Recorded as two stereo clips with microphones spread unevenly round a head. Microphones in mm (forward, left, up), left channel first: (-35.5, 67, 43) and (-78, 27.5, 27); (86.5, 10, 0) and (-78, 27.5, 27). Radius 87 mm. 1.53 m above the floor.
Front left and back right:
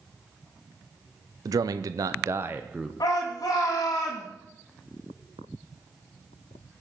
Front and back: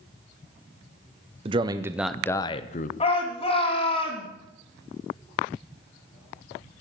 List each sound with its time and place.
1.4 s a man speaking: 125° right, 0.8 m; by 2.9 s 50° right, 0.7 m
3.0 s a shout: 50° left, 3 m